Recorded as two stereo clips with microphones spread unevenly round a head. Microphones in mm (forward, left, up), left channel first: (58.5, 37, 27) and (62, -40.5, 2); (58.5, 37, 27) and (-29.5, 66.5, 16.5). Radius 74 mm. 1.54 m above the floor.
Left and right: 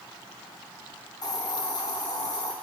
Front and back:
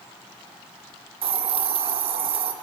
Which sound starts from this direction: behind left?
A hiss, at 1.2 s.